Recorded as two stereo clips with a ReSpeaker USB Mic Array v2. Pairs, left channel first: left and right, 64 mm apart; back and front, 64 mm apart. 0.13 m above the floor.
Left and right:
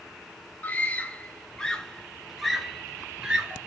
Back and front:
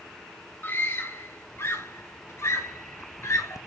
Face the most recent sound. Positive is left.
turn(degrees=-160)